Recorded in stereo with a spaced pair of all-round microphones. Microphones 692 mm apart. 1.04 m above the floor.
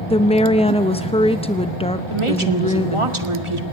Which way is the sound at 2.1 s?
45° right (ahead or behind).